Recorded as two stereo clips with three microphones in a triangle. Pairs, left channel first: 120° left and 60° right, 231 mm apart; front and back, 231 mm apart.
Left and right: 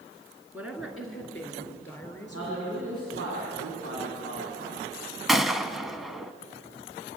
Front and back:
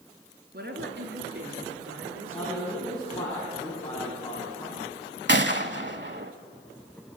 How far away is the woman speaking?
About 3.5 m.